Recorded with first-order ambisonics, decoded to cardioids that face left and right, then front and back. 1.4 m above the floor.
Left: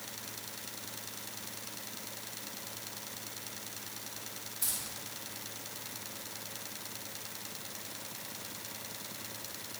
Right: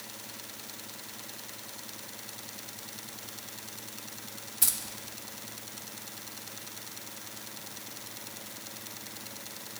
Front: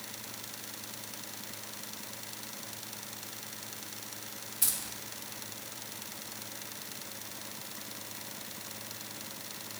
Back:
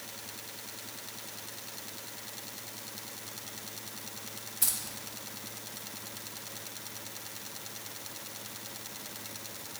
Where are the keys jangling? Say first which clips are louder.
Right 7 dB, even; 95° right, 0.6 m.